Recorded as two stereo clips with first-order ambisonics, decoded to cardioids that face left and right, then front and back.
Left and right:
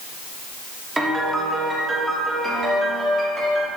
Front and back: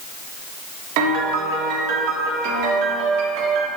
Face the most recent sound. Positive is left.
turn(degrees=-165)